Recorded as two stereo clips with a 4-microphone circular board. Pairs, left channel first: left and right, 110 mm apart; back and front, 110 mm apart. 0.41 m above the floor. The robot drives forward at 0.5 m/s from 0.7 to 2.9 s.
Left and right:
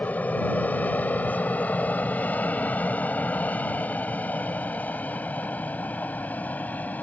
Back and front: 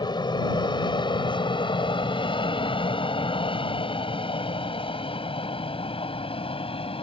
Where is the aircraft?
160° left; by 7.0 s 165° left.